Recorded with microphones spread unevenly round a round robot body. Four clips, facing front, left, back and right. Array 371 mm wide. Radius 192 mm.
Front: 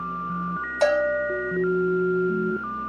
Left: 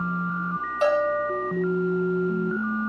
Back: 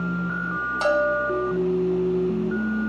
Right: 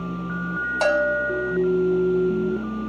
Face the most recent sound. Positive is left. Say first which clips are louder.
# right 1 dB, front 1 dB
turn(degrees=-60)